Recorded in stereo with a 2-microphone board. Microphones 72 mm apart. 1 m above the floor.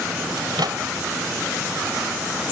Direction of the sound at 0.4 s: 85° right.